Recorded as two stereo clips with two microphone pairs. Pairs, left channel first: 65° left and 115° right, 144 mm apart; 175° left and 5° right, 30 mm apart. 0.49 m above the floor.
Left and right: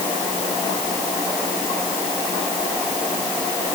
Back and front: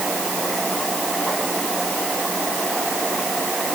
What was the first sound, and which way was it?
Only background noise.